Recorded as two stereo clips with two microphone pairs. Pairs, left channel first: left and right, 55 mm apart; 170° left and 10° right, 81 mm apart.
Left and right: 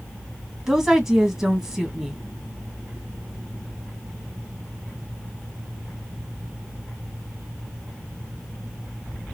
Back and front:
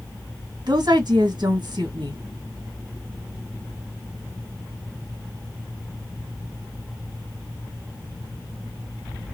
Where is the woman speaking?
15° right, 1.7 m.